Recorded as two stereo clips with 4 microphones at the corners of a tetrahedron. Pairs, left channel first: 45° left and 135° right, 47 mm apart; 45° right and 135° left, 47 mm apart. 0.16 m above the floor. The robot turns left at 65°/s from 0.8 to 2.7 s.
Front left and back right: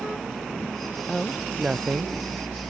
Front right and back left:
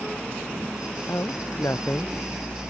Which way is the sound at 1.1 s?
25° right.